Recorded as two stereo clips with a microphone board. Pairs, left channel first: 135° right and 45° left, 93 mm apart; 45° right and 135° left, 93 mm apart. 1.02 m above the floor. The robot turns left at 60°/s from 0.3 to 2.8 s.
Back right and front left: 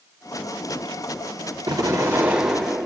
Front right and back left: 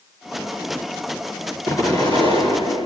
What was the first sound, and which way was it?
An explosion, 10° left.